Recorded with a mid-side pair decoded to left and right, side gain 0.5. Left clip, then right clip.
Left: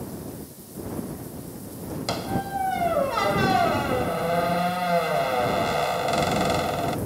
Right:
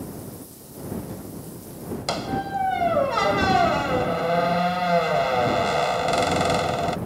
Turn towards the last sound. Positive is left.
turn(degrees=-15)